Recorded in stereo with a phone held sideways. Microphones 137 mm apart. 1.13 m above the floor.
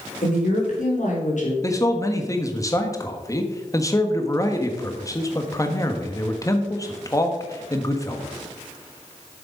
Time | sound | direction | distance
0.2 | a woman speaking | 75° left (ahead or behind) | 4.5 m
1.6 | a man speaking | 25° left (ahead or behind) | 1.3 m